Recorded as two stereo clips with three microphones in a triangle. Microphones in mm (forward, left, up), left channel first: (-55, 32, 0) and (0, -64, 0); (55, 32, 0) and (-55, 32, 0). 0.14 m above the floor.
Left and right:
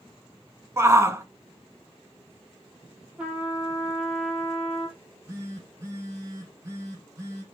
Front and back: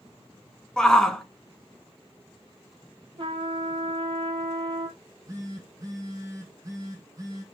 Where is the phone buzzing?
125° right, 5 m.